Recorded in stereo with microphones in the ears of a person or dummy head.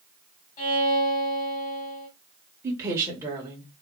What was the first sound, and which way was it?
A violin, 30° left (ahead or behind).